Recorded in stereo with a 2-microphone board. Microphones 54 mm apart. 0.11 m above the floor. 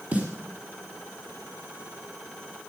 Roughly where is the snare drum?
Right.